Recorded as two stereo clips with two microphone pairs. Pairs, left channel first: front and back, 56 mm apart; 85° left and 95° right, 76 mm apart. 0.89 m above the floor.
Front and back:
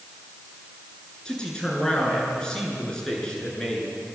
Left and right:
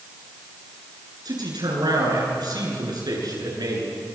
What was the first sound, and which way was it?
A man speaking, 75° right.